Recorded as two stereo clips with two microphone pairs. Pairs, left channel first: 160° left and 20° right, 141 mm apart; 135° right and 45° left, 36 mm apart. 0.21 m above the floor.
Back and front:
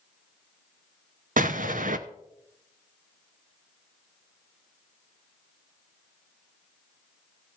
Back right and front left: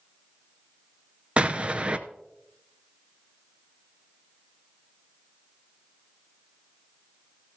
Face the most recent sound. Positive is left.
turn(degrees=-10)